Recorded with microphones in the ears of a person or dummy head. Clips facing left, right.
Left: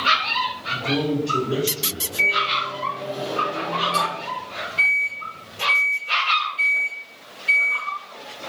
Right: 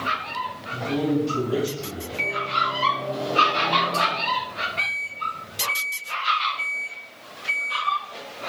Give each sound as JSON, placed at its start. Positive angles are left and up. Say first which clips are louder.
{"t": 0.7, "sound": "a man speaking", "louder": "even", "side_deg": 65, "distance_m": 1.4}
{"t": 2.2, "sound": "a microwave", "louder": "left 2 dB", "side_deg": 10, "distance_m": 1.1}